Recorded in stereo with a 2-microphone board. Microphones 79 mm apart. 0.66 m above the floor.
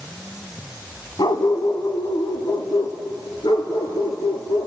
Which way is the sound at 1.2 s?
65° left (ahead or behind).